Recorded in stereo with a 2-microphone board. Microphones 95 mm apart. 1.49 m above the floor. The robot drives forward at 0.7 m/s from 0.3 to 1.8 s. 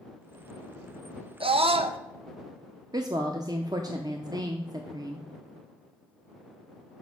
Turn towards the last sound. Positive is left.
turn(degrees=-45)  # may be behind; listen again after turning